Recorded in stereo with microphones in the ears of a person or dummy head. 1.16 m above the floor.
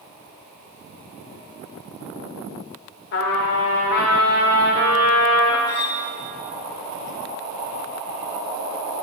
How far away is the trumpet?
About 1.1 m.